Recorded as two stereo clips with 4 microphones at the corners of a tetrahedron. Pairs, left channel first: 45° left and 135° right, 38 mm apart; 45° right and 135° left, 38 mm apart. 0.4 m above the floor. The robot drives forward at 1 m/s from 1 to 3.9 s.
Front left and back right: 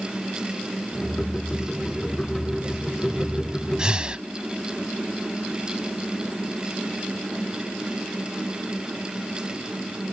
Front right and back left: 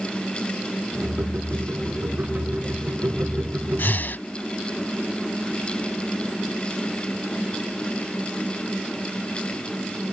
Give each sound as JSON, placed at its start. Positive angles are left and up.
{"t": 3.8, "sound": "breathing", "azimuth_deg": -65}